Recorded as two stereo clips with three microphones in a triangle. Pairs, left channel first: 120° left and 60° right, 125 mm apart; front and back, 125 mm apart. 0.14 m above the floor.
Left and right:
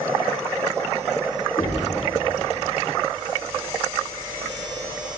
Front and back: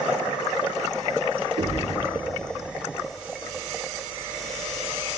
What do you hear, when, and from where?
1.6 s knocking: straight behind, 6 m